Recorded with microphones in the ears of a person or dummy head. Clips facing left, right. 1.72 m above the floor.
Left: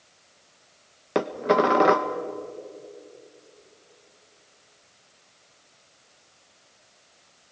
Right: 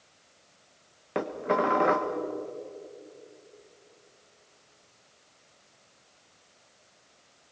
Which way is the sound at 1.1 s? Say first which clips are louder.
Left 6 dB; 60° left (ahead or behind).